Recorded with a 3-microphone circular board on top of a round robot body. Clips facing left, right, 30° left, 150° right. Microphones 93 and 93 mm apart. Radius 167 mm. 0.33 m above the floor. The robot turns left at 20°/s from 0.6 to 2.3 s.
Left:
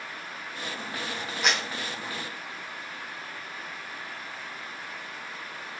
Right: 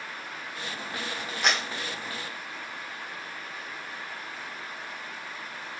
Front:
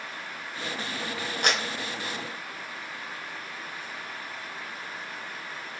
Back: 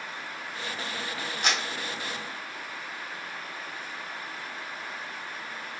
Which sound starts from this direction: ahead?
A clap, at 1.4 s.